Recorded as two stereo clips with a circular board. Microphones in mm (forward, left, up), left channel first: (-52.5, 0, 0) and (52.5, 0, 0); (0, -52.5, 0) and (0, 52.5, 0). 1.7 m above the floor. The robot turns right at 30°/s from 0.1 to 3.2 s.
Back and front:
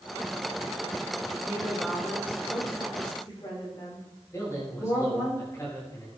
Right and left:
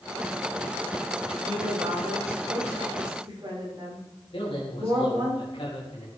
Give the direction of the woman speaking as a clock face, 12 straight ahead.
9 o'clock.